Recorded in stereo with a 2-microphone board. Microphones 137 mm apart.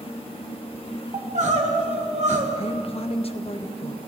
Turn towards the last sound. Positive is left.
turn(degrees=45)  # may be behind; listen again after turning